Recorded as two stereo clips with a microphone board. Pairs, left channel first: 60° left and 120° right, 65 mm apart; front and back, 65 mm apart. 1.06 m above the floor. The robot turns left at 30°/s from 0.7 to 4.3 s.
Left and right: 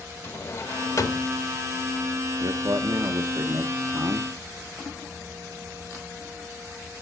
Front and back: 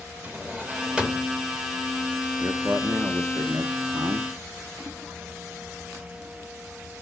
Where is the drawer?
115° left, 1.0 m; by 1.3 s 95° left, 1.0 m.